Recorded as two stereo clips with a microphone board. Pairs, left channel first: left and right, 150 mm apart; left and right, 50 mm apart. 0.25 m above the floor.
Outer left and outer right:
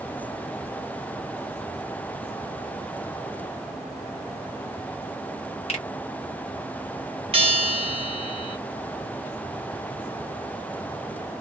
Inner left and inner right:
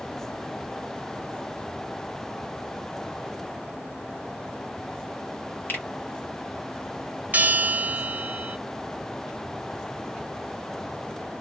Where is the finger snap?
45° left (ahead or behind), 1.5 m.